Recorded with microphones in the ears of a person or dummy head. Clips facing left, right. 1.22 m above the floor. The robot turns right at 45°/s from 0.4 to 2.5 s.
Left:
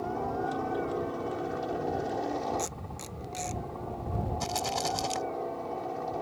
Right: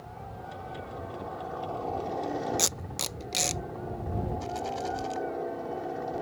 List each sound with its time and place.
0.0 s a helicopter: 100° left; by 6.2 s 165° right
2.6 s tape being pulled: 85° right
4.4 s a rattle: 60° left (ahead or behind)